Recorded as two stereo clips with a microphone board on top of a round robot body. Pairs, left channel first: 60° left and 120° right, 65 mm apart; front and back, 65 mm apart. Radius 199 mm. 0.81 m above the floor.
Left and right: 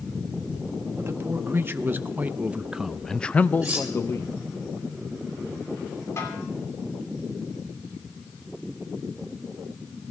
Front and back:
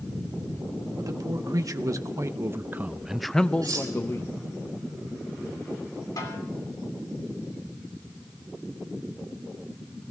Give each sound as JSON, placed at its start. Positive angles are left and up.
{"t": 1.0, "sound": "a man speaking", "azimuth_deg": -165, "distance_m": 1.4}
{"t": 3.6, "sound": "cutlery clinking", "azimuth_deg": 170, "distance_m": 4.0}
{"t": 6.2, "sound": "a snare drum", "azimuth_deg": 20, "distance_m": 3.0}